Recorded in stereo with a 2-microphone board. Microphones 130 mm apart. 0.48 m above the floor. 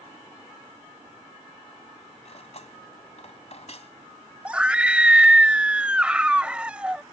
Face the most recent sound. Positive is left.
turn(degrees=-5)  # may be behind; listen again after turning